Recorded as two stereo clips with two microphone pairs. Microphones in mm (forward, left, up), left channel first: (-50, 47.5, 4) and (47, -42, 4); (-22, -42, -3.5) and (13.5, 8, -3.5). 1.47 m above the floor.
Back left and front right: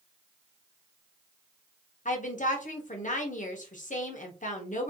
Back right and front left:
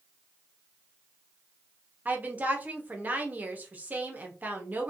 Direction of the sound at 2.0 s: 120° left.